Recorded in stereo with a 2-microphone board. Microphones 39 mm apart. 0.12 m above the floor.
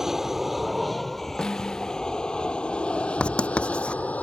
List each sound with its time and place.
0.0 s an aircraft: 10° right (ahead or behind); by 4.2 s 45° left (ahead or behind)
1.4 s a snare drum: 25° left (ahead or behind)
3.2 s writing: 30° left (ahead or behind)